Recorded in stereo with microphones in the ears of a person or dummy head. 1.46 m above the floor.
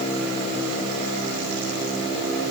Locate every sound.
Only background noise.